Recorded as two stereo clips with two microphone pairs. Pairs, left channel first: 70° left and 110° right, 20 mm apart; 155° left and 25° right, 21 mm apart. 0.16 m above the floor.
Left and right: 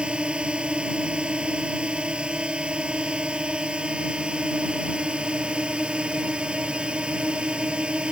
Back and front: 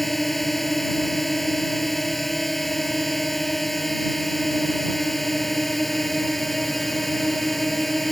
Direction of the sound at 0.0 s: 120° right.